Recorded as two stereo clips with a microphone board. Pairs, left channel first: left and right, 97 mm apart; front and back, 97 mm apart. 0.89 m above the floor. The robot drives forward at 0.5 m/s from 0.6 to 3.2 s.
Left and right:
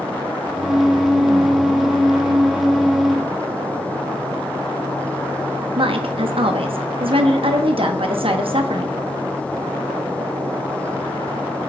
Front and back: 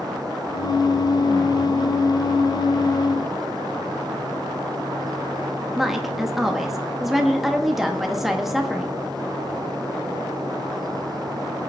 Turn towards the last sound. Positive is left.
turn(degrees=-95)